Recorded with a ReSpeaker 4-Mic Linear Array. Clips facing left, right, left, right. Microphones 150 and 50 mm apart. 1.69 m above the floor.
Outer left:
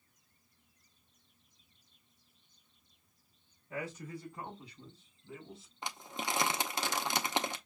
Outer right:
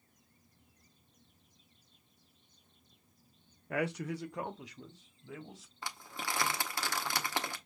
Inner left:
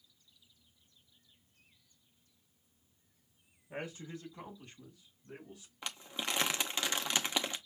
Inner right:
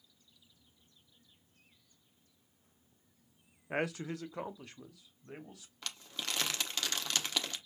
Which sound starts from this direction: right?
A man speaking, at 3.7 s.